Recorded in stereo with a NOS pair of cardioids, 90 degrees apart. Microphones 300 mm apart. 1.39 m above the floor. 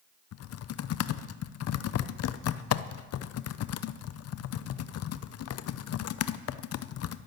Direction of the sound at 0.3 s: 55° left.